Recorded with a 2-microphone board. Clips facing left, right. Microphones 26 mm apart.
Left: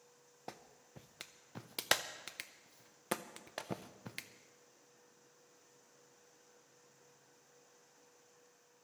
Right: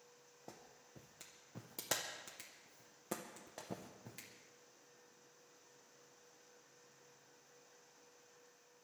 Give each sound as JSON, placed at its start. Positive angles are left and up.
{"t": 0.5, "sound": "a clap", "side_deg": 65, "distance_m": 0.7}